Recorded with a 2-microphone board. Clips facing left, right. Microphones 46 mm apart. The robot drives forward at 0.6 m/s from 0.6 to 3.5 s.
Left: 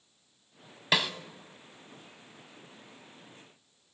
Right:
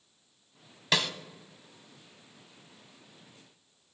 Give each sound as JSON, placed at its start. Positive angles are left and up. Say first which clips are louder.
{"t": 0.9, "sound": "a snare drum", "louder": "left 1 dB", "side_deg": 10, "distance_m": 0.7}